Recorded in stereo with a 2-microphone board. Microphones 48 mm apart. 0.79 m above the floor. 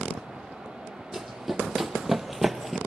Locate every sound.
1.1 s running footsteps: 5° right (ahead or behind), 1.9 m; by 2.8 s centre (ahead or behind), 0.9 m